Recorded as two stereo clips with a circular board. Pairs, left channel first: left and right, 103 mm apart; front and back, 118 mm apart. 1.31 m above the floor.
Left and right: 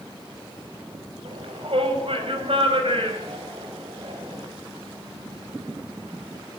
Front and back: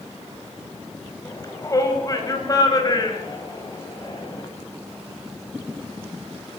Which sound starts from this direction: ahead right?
A shout, at 1.2 s.